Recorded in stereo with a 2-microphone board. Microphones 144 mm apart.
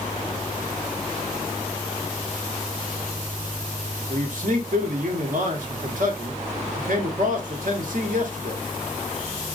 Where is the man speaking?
65° right (ahead or behind), 1.0 m.